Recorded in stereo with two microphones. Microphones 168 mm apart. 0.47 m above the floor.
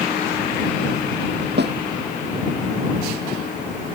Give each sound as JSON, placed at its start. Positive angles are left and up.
{"t": 1.6, "sound": "a snare drum", "side_deg": -75}